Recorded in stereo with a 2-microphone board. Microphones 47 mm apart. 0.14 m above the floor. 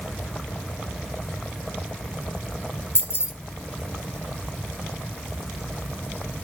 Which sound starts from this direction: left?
Keys jangling, at 3.0 s.